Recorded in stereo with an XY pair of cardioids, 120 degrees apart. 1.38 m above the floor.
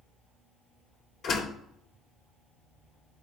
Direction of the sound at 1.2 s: 60° left.